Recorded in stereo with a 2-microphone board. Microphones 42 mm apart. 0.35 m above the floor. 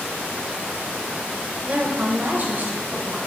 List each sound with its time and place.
1.7 s a woman speaking: 35° right (ahead or behind), 1.1 m; by 3.2 s 45° right (ahead or behind), 2.5 m